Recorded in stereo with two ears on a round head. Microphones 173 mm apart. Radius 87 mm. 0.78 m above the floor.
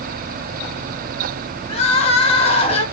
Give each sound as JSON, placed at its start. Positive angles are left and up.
{"t": 1.7, "sound": "crying", "side_deg": 30, "distance_m": 0.8}